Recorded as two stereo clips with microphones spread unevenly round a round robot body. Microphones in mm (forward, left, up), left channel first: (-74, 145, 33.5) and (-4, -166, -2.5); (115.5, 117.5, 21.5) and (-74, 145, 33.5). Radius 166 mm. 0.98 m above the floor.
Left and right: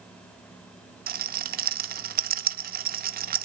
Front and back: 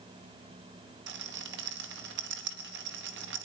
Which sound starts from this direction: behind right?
A rattle, at 1.1 s.